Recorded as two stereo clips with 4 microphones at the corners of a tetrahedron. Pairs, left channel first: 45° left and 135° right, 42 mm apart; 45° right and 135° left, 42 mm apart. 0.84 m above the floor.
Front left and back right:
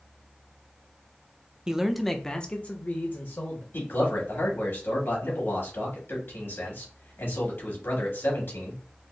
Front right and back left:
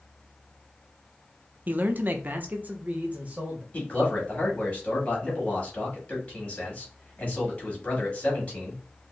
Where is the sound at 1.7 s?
155° left, 0.6 m; by 3.6 s 75° left, 1.1 m.